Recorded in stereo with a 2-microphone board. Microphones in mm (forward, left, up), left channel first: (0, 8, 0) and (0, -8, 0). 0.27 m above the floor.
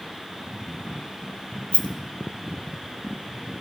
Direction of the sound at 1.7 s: 85° left.